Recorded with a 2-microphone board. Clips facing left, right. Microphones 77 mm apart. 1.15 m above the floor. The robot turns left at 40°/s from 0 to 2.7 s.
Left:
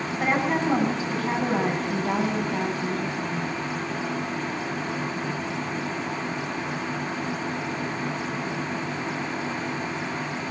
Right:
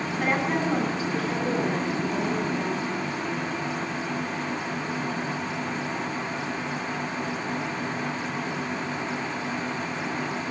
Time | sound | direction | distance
0.2 | a woman speaking | 160° left | 9.5 m